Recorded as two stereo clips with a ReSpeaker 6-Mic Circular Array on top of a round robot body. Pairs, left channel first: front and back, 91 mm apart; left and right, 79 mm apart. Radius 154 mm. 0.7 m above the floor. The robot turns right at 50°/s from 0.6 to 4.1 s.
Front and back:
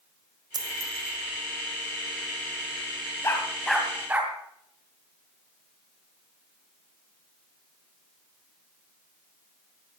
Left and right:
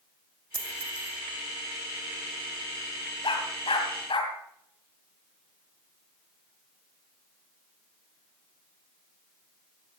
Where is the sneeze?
I don't hear a sneeze.